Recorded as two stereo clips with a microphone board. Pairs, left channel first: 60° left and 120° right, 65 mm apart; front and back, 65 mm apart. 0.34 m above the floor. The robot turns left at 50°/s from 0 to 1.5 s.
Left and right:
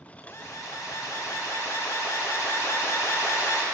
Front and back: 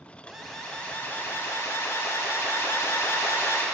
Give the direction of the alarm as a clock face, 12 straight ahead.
9 o'clock.